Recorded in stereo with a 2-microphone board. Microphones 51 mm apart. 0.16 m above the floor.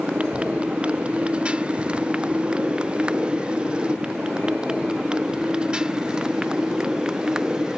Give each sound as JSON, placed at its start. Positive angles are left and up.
{"t": 0.0, "sound": "a motorcycle", "side_deg": -20}